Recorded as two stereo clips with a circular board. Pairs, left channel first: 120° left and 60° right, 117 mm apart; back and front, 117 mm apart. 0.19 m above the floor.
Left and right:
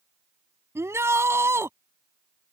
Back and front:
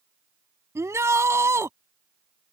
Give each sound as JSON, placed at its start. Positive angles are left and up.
{"t": 0.8, "sound": "a shout", "azimuth_deg": -30}